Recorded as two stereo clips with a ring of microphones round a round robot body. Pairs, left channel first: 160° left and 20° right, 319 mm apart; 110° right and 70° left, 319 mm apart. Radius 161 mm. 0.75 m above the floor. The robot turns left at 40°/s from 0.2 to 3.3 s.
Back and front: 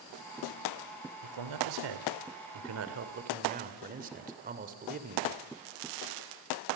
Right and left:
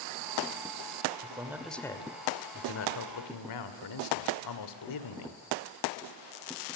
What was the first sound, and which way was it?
A man speaking, 5° right.